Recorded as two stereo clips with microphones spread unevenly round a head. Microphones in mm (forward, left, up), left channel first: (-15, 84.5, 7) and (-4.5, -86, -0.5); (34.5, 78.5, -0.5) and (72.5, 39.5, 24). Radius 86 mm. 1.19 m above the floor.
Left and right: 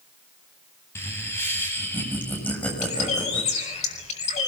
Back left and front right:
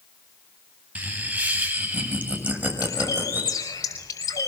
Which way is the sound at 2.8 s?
145° left.